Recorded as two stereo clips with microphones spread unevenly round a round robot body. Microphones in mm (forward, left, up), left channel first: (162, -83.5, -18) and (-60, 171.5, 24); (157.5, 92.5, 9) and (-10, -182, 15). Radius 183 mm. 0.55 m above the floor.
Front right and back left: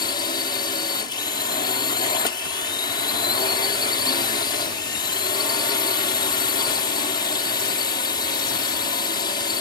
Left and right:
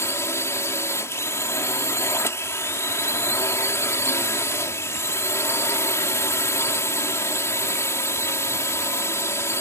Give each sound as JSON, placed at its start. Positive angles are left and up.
{"t": 0.0, "sound": "a drone", "azimuth_deg": -10}